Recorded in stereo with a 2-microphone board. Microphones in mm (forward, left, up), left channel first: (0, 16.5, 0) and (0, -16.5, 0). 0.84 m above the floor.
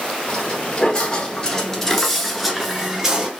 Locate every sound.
0.3 s footsteps: 30° left (ahead or behind), 1.4 m; by 3.3 s 20° right (ahead or behind), 0.9 m